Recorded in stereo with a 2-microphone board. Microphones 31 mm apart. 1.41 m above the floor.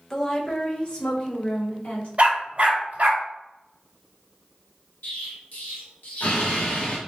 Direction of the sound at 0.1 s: 15° left (ahead or behind).